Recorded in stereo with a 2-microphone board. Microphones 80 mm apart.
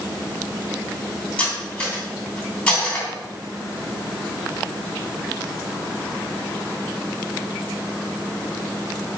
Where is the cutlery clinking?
20° left (ahead or behind), 3 m.